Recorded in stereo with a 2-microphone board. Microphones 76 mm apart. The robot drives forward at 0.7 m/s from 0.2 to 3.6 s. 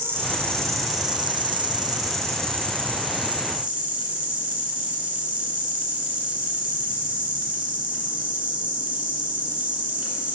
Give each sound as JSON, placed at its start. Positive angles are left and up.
{"t": 0.0, "sound": "an insect", "side_deg": -30, "distance_m": 1.0}